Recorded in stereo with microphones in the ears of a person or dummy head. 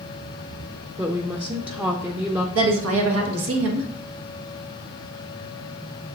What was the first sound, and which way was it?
A woman speaking, 5° right (ahead or behind).